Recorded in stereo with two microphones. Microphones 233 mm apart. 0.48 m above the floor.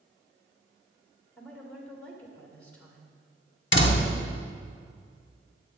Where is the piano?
I don't hear a piano.